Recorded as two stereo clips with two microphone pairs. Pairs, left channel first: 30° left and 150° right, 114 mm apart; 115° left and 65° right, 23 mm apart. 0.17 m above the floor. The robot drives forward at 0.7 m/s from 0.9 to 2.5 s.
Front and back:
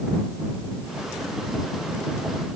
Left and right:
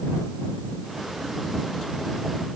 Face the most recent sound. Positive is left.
No sound to turn to.